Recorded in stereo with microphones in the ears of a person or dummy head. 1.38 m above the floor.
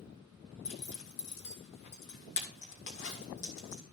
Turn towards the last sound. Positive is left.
turn(degrees=65)  # may be behind; listen again after turning